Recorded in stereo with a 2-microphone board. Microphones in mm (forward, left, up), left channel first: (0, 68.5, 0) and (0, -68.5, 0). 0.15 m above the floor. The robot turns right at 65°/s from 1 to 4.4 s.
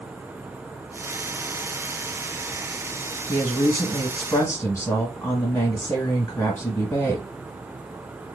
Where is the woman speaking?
15° left (ahead or behind), 1.1 m.